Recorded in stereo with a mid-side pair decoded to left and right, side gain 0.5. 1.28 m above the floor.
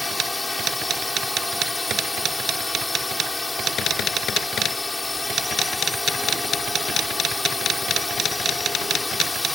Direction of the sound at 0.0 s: 15° left.